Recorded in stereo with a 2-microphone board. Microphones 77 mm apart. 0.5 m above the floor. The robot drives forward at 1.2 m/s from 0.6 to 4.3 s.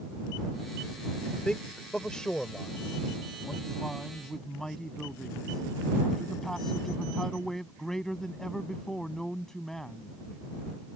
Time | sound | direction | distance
1.4 | a man speaking | 10° left (ahead or behind) | ?